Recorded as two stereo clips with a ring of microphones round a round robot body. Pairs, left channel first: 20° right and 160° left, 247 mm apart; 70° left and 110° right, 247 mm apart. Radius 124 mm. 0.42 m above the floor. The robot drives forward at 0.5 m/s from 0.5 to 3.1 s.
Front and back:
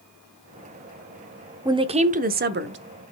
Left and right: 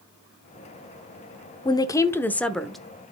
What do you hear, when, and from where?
1.6 s a woman speaking: 110° left, 0.8 m; by 2.8 s 155° left, 1.0 m